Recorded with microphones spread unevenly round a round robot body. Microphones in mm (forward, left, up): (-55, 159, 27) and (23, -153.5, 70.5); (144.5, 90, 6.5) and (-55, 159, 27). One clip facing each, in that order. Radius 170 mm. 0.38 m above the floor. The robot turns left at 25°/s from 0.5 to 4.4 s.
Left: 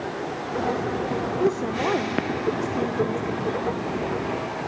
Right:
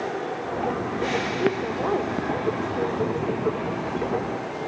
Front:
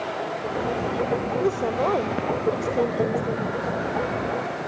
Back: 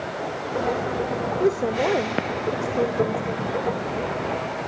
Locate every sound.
1.4 s a woman speaking: 95° left, 1.3 m; by 3.5 s 45° left, 1.3 m